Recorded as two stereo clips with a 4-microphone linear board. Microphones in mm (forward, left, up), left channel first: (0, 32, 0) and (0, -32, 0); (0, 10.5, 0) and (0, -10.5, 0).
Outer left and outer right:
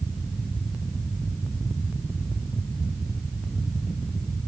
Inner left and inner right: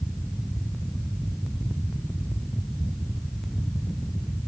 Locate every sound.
Only background noise.